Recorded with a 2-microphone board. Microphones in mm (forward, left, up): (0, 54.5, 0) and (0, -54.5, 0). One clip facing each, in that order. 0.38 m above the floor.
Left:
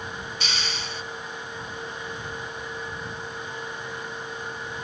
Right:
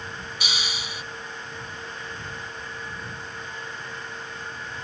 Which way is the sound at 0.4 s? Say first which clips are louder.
Right 1 dB; 10° right (ahead or behind).